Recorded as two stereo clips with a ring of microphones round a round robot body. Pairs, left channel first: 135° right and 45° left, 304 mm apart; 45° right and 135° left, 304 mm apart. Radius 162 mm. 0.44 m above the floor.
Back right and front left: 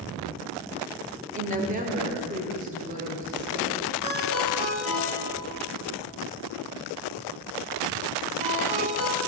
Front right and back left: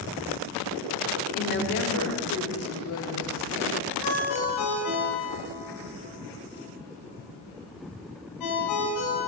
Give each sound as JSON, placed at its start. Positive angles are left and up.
{"t": 1.4, "sound": "a woman speaking", "azimuth_deg": -5, "distance_m": 0.9}
{"t": 4.0, "sound": "a ringtone", "azimuth_deg": -25, "distance_m": 1.8}